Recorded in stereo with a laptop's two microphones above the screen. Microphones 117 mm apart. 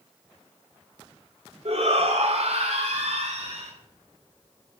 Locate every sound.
1.6 s a shout: 60° right (ahead or behind), 2.5 m; by 3.7 s 70° right (ahead or behind), 4.5 m